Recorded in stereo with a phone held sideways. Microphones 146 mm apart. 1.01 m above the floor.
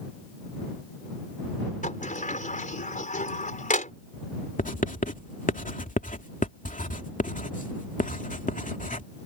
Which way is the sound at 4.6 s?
65° left (ahead or behind).